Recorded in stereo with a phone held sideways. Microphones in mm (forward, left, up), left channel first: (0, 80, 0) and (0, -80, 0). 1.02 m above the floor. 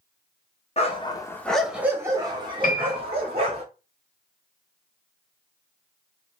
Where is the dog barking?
40° left (ahead or behind), 0.7 m; by 3.6 s 40° right (ahead or behind), 1.6 m.